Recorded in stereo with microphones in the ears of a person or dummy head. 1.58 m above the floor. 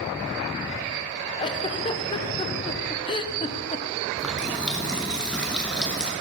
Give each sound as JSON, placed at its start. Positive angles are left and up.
{"t": 1.4, "sound": "a giggle", "side_deg": 25, "distance_m": 0.8}
{"t": 4.2, "sound": "a running tap", "side_deg": 5, "distance_m": 1.0}